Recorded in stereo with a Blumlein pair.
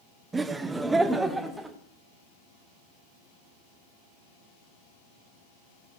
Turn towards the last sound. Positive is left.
turn(degrees=-5)